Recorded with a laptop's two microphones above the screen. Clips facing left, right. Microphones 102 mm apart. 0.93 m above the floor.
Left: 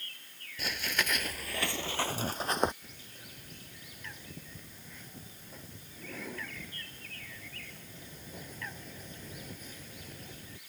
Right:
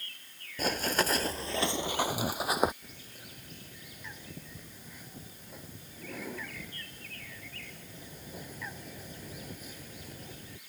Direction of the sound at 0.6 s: 45° right (ahead or behind).